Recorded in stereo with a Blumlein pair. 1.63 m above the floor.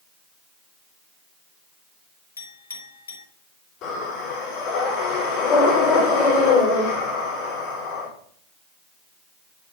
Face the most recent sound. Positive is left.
turn(degrees=30)